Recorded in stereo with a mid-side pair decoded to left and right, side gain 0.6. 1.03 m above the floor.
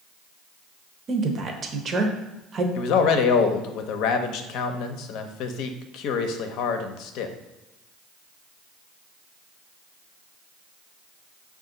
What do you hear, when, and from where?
1.1 s a woman speaking: 40° right, 0.8 m
2.8 s a man speaking: 70° left, 0.6 m